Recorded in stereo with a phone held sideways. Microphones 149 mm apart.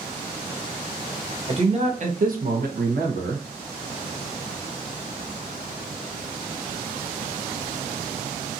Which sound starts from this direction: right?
A man speaking, at 1.5 s.